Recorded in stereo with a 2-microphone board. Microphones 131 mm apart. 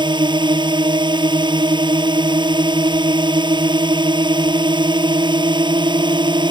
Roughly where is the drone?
Right.